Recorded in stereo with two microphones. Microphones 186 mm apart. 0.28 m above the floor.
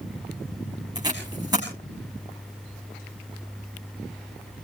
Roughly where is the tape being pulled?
Right.